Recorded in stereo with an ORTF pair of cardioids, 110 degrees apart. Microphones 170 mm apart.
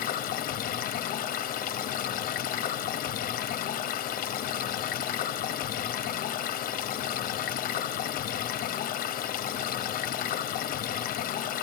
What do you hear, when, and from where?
0.0 s running water: 60° left, 0.7 m